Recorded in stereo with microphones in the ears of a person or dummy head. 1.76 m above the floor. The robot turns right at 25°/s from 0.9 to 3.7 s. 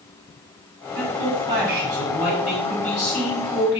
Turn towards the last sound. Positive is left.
turn(degrees=40)